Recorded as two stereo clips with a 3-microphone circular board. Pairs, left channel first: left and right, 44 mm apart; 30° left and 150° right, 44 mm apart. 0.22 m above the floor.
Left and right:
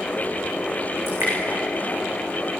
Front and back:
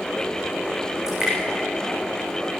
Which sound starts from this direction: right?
Dripping, at 1.1 s.